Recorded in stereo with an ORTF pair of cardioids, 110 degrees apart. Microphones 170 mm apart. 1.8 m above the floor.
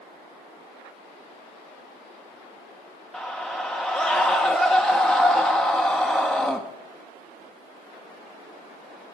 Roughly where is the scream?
Ahead.